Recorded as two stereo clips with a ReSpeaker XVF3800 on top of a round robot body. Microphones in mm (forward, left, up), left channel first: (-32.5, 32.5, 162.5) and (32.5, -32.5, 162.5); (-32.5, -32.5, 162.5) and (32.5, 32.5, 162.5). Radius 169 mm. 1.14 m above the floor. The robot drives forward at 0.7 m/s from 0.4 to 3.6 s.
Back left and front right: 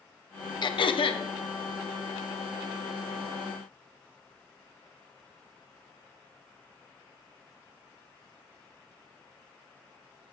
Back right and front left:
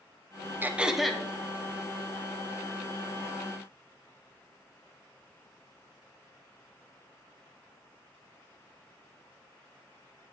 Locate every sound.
0.6 s throat clearing: 110° left, 0.6 m; by 1.2 s 140° left, 0.9 m